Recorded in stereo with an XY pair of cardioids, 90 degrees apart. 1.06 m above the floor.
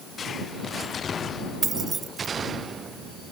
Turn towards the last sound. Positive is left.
turn(degrees=-50)